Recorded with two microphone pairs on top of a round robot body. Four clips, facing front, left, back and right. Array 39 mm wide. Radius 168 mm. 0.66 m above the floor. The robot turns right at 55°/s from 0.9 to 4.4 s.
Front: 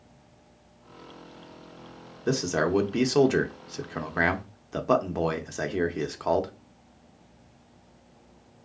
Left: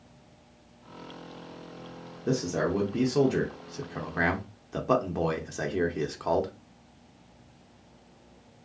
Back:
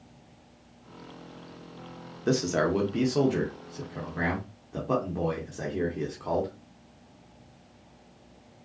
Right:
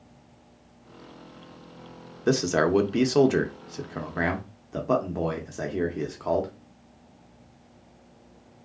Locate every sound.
2.3 s a man speaking: 95° right, 0.7 m; by 6.5 s 20° left, 0.7 m